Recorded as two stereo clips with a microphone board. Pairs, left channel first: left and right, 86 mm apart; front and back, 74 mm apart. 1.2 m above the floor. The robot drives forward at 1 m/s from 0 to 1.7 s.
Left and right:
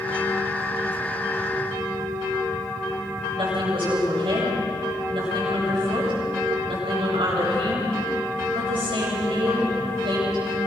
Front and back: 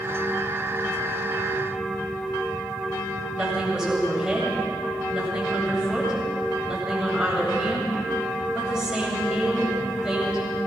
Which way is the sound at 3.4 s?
100° right.